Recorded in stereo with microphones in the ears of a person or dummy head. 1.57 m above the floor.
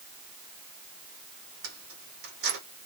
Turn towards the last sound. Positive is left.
turn(degrees=-70)  # may be behind; listen again after turning